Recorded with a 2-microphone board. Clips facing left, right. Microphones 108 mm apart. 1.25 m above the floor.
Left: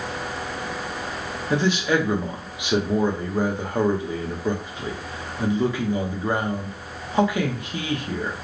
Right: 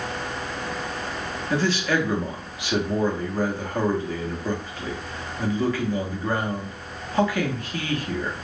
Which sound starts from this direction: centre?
A man speaking, at 1.5 s.